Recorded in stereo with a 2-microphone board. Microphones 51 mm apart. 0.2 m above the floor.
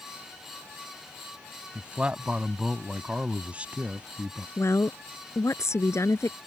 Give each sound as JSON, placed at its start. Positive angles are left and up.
{"t": 1.8, "sound": "a man speaking", "side_deg": -25}
{"t": 4.6, "sound": "a woman speaking", "side_deg": 65}